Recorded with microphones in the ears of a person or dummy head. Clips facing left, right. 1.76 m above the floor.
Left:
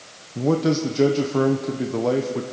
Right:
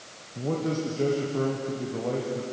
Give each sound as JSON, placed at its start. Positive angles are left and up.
{"t": 0.3, "sound": "a man speaking", "side_deg": 85, "distance_m": 1.4}